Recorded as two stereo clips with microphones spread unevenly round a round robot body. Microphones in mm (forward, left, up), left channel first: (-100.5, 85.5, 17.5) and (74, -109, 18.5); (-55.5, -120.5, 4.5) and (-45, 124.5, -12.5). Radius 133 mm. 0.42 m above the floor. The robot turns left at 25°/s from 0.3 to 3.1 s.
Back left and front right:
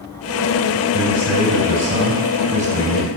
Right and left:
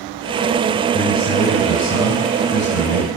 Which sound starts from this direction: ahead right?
A man speaking, at 0.9 s.